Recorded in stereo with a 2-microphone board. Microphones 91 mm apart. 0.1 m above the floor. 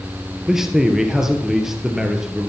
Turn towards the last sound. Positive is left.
turn(degrees=-5)  # may be behind; listen again after turning